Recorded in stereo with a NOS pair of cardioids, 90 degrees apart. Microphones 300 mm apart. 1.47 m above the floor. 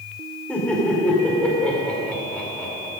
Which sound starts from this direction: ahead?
Laughter, at 0.5 s.